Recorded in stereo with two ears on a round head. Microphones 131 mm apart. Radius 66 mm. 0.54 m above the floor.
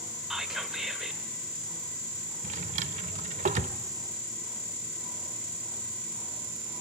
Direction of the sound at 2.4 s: 45° right (ahead or behind).